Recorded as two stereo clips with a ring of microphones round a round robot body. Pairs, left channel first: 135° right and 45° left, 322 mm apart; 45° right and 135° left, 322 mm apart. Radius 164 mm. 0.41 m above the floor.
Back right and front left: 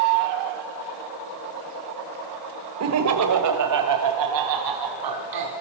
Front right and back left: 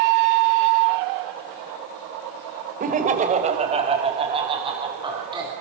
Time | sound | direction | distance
2.8 | laughter | 75° left | 2 m